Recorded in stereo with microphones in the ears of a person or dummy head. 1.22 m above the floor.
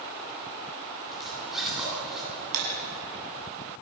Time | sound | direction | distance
1.1 | a zipper | centre (ahead or behind) | 9 m
2.5 | breaking glass | 85° right | 7.5 m